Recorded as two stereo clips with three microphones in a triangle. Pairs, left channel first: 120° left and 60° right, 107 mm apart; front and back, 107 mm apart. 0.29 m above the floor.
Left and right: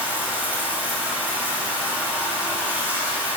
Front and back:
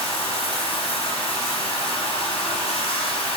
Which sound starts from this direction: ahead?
Running water, at 0.0 s.